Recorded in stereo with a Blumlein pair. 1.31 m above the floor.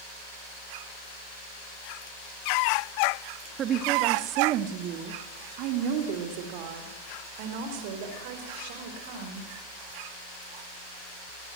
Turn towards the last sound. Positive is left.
turn(degrees=-50)